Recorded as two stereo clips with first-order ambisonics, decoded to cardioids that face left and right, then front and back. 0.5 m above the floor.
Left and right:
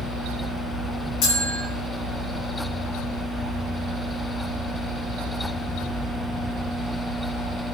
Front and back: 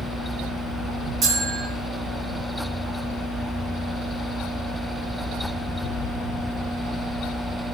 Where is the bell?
130° left, 7.5 m.